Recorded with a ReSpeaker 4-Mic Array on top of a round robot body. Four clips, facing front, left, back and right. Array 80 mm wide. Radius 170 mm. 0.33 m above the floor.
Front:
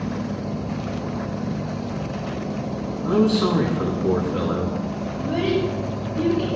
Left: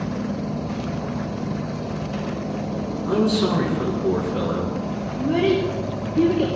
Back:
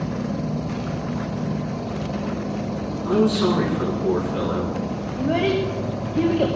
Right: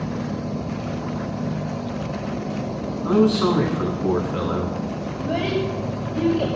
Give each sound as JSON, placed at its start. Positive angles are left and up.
{"t": 3.0, "sound": "a man speaking", "azimuth_deg": -100, "distance_m": 6.5}
{"t": 5.2, "sound": "a child speaking", "azimuth_deg": -160, "distance_m": 2.5}